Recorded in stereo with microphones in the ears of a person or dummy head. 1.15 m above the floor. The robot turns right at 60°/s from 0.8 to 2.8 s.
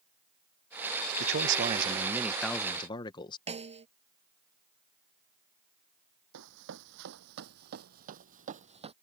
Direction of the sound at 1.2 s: 70° right.